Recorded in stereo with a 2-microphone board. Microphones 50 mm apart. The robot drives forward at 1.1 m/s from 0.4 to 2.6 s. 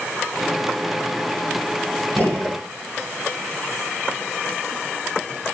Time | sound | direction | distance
2.2 | a gunshot | 35° left (ahead or behind) | 5 m